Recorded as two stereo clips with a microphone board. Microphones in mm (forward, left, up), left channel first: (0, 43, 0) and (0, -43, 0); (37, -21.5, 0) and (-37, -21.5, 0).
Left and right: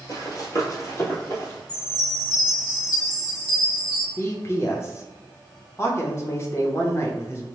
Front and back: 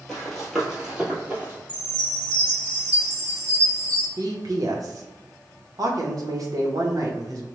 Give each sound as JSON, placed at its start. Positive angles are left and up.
{"t": 0.1, "sound": "running footsteps", "azimuth_deg": 80, "distance_m": 1.6}
{"t": 1.7, "sound": "a chime", "azimuth_deg": 125, "distance_m": 1.4}
{"t": 4.2, "sound": "a man speaking", "azimuth_deg": 150, "distance_m": 0.9}